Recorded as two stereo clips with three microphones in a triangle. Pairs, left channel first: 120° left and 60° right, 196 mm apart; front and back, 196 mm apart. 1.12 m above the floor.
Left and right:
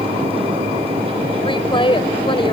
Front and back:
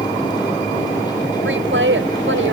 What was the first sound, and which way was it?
A woman speaking, 175° right.